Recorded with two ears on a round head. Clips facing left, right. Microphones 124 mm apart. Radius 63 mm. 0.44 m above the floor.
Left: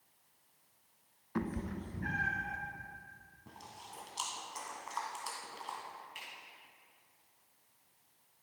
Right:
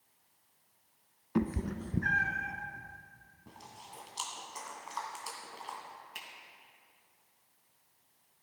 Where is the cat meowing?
30° right (ahead or behind), 0.6 m; by 2.5 s 80° right, 1.4 m.